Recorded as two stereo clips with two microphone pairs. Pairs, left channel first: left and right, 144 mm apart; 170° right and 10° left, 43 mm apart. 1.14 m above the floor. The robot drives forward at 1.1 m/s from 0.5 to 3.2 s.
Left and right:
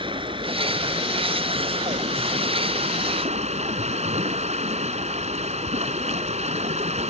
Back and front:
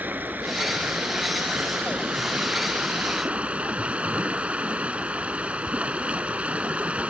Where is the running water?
35° right; by 7.1 s 50° right.